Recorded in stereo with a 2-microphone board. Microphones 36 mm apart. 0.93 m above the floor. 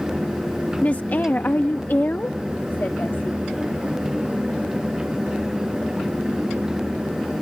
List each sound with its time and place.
0.8 s a woman speaking: 45° left (ahead or behind); by 3.5 s 60° left (ahead or behind)